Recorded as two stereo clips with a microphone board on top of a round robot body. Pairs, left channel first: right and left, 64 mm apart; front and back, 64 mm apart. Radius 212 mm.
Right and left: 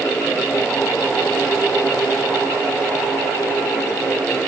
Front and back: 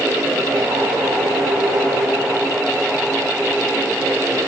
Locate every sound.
Only background noise.